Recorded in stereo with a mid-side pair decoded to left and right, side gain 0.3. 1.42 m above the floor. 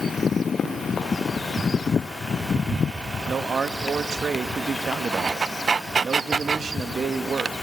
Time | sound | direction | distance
0.6 | running footsteps | 60° left | 7 m
3.3 | a man speaking | 65° right | 2 m